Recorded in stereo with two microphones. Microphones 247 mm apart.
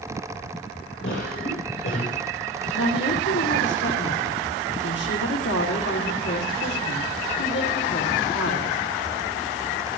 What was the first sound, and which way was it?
A cough, 60° left (ahead or behind).